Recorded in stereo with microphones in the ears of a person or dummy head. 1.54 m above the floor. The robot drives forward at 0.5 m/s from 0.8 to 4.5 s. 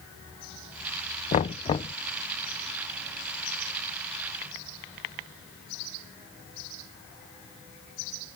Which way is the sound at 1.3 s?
35° left (ahead or behind).